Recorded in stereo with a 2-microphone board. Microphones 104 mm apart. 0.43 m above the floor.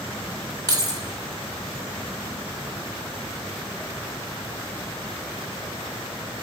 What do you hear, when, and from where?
0.7 s keys jangling: 35° right (ahead or behind), 0.8 m